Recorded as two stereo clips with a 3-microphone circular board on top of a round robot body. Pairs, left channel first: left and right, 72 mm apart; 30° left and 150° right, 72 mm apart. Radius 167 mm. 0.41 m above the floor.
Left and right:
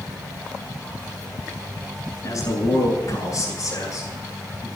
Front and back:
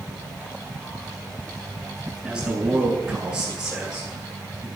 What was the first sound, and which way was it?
A man speaking, 130° left.